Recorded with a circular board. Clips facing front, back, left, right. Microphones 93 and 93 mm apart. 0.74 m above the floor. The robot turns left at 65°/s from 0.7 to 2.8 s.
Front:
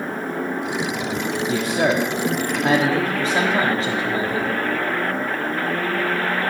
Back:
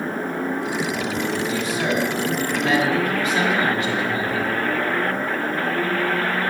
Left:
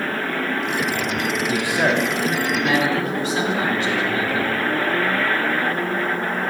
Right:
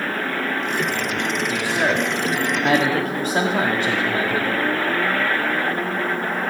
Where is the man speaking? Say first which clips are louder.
Front 3 dB, left 2 dB; 30° left, 1.3 m; by 4.6 s 55° right, 1.3 m.